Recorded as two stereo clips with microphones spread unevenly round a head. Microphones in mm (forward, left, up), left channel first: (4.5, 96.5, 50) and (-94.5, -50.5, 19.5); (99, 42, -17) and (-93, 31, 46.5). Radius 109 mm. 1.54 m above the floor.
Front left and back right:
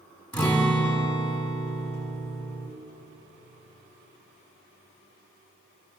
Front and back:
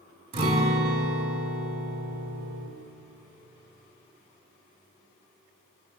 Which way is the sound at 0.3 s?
140° left.